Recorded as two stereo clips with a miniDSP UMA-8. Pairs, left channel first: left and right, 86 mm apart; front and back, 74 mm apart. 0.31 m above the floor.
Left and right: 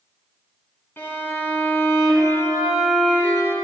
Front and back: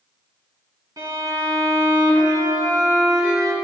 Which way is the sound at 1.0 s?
150° left.